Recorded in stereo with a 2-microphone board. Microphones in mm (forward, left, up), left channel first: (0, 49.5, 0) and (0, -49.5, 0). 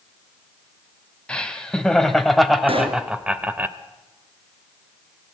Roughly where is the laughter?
Centre.